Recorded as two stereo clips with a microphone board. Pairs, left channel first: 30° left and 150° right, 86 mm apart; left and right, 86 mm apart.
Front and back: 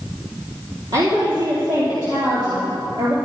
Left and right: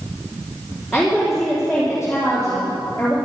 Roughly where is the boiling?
No boiling in this recording.